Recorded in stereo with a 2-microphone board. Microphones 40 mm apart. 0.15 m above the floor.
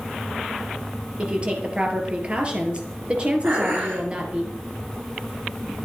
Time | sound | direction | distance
1.2 | a woman speaking | 25° right (ahead or behind) | 3.5 m
3.4 | dishes clattering | 80° right | 5.5 m